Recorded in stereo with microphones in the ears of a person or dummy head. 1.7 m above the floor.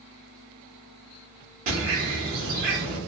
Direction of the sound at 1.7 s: 50° right (ahead or behind).